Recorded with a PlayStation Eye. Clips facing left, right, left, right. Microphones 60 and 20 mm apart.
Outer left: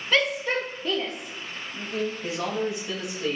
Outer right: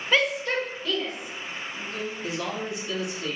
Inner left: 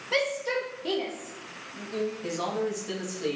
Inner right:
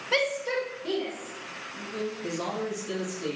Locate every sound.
0.1 s a shout: 10° right (ahead or behind), 0.8 m; by 2.1 s 60° left (ahead or behind), 1.4 m
2.2 s a man speaking: 35° left (ahead or behind), 2.5 m